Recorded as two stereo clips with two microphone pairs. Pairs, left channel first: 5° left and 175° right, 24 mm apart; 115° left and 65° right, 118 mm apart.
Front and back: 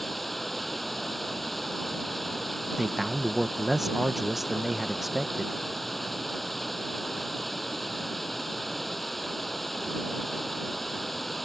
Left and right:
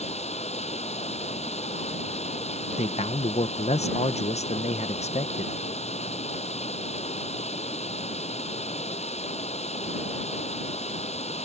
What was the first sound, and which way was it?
Running water, 90° left.